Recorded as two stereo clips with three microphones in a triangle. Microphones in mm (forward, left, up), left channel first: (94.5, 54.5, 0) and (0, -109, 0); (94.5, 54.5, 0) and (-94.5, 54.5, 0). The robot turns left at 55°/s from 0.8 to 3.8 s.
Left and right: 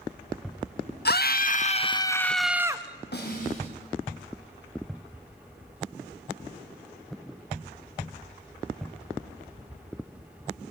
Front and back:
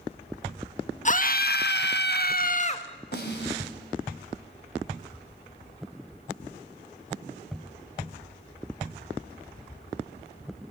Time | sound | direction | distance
1.1 | a scream | 45° left | 1.4 m
3.1 | a snare drum | 30° left | 5 m